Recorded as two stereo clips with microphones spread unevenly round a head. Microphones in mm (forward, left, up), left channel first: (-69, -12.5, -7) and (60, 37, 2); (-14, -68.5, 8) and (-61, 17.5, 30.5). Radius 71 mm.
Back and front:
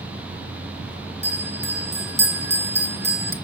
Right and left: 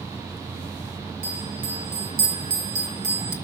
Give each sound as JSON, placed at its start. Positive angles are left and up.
{"t": 1.2, "sound": "a bell", "azimuth_deg": 85, "distance_m": 1.3}